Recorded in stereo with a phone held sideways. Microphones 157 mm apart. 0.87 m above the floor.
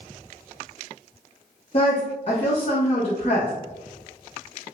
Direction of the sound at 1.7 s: 40° left (ahead or behind).